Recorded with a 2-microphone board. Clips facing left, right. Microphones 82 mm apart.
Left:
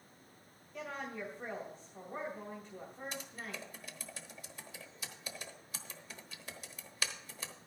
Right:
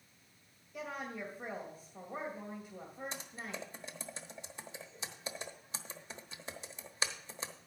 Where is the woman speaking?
5° right (ahead or behind), 2 m.